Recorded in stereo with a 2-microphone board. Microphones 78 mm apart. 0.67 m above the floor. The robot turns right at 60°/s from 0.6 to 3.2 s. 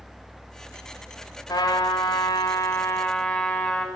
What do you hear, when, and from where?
1.5 s a trumpet: 60° left, 1.8 m; by 3.9 s 165° left, 1.8 m